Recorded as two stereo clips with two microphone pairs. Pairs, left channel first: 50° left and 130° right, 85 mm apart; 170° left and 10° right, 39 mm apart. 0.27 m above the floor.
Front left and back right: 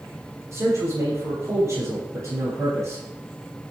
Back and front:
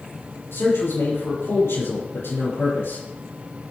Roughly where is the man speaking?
Behind.